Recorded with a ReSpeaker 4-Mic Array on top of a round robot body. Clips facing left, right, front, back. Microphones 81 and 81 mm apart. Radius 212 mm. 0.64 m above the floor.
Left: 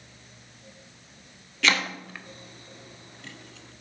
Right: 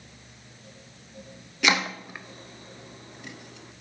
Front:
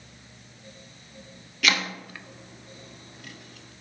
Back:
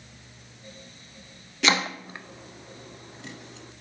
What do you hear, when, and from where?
1.6 s chopping: 150° right, 0.7 m